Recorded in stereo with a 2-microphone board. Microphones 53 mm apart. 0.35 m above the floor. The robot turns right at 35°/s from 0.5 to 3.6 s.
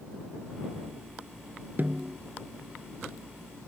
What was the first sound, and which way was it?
A snare drum, 35° right (ahead or behind).